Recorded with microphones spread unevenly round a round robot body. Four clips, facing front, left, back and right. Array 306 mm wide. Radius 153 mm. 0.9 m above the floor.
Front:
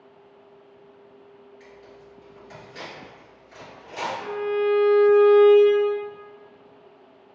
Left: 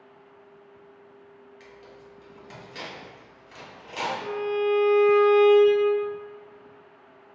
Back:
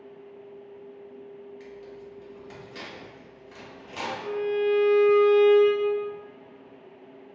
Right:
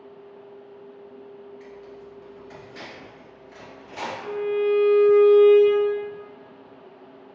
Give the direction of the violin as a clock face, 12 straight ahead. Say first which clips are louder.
Right 4 dB, front 1 dB; 10 o'clock.